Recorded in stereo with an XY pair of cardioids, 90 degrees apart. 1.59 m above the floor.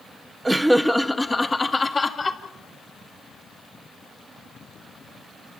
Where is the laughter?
20° right, 1.4 m; by 2.4 s 35° left, 3 m.